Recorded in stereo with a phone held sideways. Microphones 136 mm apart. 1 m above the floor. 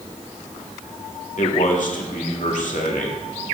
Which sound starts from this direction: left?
A man speaking, at 1.4 s.